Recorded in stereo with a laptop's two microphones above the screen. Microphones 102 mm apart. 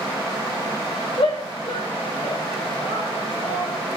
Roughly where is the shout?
Left.